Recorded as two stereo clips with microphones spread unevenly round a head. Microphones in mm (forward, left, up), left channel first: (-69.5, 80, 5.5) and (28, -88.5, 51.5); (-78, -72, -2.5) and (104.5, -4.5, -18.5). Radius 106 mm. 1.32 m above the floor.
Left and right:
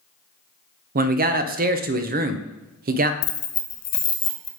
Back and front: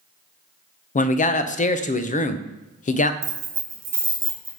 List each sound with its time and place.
0.9 s a man speaking: 105° right, 0.6 m
3.2 s keys jangling: 100° left, 0.6 m